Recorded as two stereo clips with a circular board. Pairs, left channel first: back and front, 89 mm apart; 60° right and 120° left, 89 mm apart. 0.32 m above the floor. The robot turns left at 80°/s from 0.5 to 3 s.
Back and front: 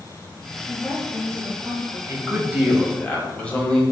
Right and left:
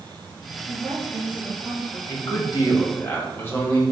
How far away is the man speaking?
About 2 m.